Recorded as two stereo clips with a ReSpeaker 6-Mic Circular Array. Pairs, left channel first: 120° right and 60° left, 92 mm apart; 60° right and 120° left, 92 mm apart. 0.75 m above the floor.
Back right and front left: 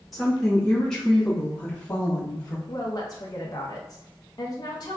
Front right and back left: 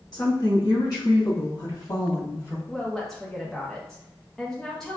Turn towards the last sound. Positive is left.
turn(degrees=-140)